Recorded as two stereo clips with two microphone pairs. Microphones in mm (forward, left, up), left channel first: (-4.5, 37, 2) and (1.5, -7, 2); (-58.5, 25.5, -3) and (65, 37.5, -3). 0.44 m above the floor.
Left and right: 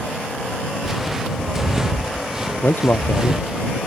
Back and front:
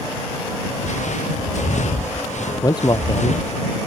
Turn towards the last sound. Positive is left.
turn(degrees=130)